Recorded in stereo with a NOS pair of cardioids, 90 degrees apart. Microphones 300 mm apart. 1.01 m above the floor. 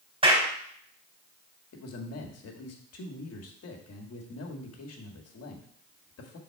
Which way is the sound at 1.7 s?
55° left.